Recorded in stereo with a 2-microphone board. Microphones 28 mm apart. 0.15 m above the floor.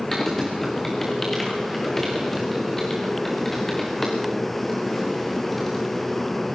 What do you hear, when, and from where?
0.1 s typing on a keyboard: 5° left (ahead or behind), 4 m